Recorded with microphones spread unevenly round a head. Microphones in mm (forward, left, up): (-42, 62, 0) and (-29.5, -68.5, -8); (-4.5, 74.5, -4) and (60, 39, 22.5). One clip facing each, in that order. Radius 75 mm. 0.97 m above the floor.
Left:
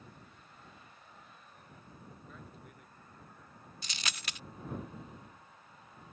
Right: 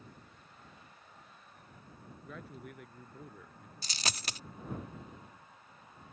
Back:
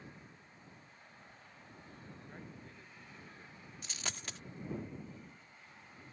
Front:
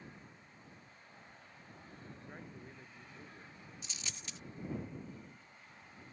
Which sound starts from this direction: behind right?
A dropped coin, at 3.8 s.